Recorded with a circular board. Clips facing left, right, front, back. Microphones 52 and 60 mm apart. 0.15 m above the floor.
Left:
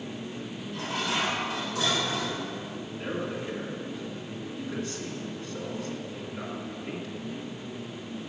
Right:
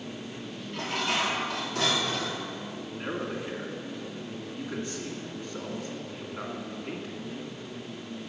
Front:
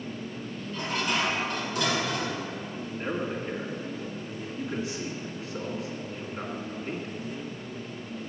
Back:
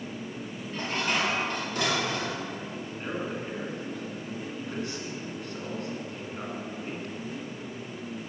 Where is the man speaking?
55° right, 1.6 m.